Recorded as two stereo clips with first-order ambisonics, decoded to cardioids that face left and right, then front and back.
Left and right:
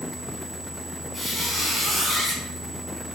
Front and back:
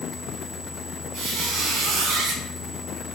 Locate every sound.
1.1 s a squeak: 175° left, 0.8 m